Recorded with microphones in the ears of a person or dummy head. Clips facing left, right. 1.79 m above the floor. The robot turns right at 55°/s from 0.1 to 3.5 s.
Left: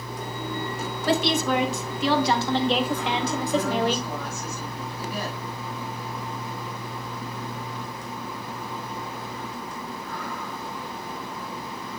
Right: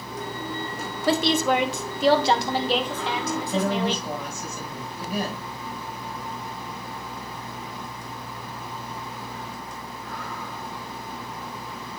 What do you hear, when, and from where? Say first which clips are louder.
1.1 s a woman speaking: right 2 dB; 90° right, 1.5 m; by 4.1 s 45° left, 1.5 m
3.3 s a woman speaking: even; 25° right (ahead or behind), 6.5 m; by 5.5 s 15° right (ahead or behind), 6.5 m